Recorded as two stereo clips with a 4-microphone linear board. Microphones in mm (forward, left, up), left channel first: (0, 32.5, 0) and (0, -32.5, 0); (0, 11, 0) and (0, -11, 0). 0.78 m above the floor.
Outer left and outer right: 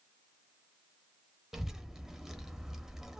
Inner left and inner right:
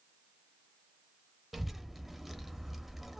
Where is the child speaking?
5° right (ahead or behind), 0.6 m.